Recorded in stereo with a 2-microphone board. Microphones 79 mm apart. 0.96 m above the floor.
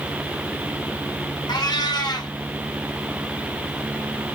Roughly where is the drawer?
No drawer in this recording.